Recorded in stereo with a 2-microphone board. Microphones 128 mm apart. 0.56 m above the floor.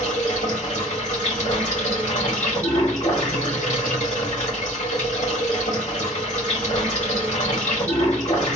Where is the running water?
65° left (ahead or behind), 2.5 m.